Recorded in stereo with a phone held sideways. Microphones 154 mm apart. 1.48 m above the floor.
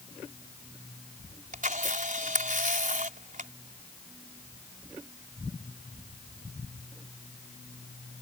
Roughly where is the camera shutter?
Right.